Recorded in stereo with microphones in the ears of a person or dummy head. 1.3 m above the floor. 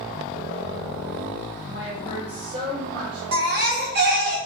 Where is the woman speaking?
20° right (ahead or behind), 1.0 m; by 3.2 s 65° right (ahead or behind), 0.6 m.